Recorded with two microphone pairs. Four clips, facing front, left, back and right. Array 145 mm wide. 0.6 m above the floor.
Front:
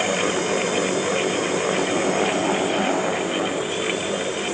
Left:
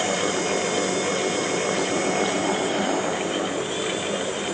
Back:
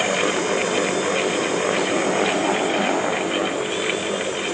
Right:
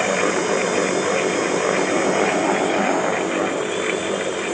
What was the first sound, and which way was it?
Only background noise.